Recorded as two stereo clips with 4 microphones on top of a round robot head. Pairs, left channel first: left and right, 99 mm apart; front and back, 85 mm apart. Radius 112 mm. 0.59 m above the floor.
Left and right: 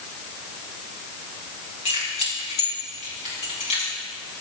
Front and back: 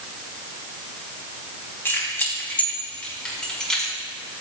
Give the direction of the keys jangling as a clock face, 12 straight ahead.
10 o'clock.